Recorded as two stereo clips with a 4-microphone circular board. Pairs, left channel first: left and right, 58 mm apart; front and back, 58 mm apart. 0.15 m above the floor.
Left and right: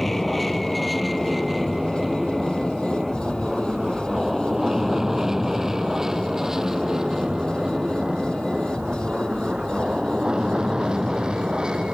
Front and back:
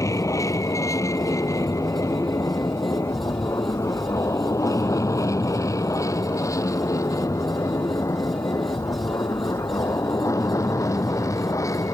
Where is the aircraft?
5° left; by 11.9 s 15° right.